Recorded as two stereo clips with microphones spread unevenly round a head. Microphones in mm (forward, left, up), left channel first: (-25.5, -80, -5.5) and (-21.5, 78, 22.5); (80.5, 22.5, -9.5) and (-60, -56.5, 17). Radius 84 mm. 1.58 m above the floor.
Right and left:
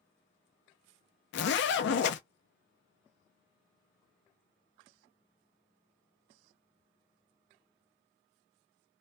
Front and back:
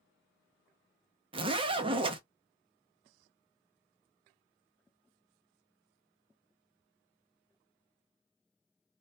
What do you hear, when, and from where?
1.3 s a zipper: 90° right, 0.5 m